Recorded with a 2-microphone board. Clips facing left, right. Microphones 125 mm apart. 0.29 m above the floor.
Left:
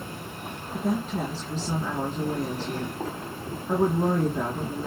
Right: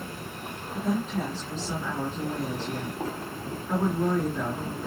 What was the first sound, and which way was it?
A woman speaking, 35° left (ahead or behind).